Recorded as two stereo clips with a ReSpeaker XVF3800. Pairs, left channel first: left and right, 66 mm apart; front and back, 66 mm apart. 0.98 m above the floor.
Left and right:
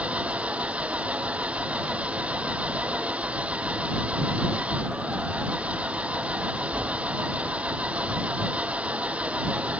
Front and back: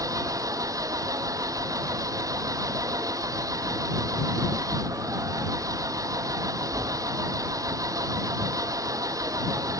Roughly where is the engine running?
Behind.